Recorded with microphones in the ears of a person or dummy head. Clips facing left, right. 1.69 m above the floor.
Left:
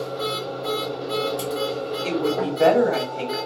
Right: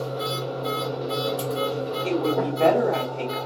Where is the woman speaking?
20° left (ahead or behind), 1.1 m.